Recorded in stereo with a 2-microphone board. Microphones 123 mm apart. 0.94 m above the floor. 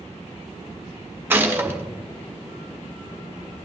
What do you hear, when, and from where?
1.3 s a gunshot: 15° right (ahead or behind), 1.3 m